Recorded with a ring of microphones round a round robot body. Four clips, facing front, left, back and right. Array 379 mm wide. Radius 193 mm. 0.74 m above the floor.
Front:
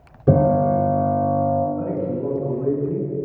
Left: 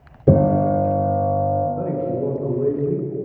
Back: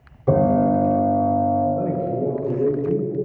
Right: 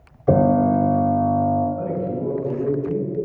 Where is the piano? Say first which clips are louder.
Even, even; 60° left, 4 m.